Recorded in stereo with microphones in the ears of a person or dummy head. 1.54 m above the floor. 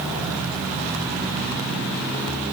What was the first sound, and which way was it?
Only background noise.